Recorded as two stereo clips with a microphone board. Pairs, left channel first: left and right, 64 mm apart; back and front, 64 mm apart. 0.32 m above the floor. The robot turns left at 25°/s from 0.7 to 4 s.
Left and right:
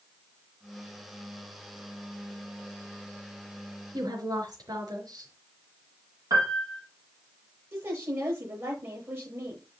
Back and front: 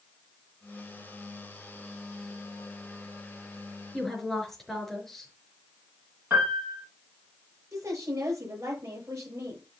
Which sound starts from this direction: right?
A woman speaking, at 3.9 s.